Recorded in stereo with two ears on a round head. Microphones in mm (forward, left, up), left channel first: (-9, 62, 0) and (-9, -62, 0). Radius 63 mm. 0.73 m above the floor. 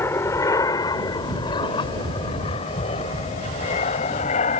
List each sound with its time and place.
0.0 s an aircraft: 20° left (ahead or behind); by 4.6 s 50° left (ahead or behind)